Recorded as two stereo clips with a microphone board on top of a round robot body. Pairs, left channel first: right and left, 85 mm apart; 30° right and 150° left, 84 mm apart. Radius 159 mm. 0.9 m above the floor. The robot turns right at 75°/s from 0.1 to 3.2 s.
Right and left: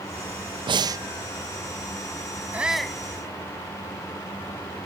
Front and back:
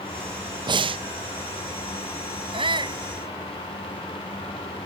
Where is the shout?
160° left; by 3.0 s 165° right.